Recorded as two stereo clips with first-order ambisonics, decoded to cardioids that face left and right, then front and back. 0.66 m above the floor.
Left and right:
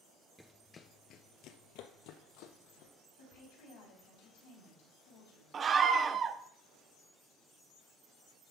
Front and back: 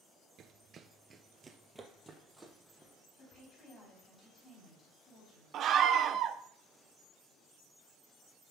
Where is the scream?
145° right, 0.6 m.